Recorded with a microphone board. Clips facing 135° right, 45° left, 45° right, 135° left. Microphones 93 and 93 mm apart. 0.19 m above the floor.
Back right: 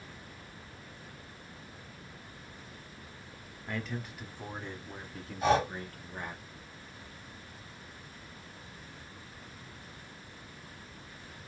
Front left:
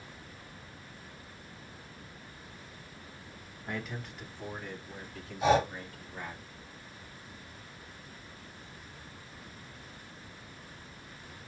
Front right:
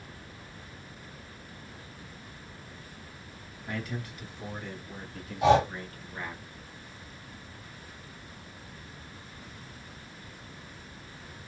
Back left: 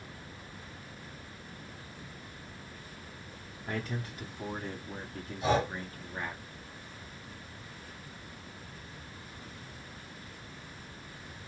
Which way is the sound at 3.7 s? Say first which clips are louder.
Back right 1 dB, even; 115° left.